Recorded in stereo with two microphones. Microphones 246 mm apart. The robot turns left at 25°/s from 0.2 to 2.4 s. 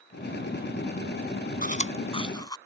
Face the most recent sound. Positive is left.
turn(degrees=15)  # may be behind; listen again after turning